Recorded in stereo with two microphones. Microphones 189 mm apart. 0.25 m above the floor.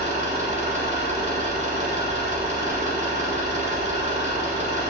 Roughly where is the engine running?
Right.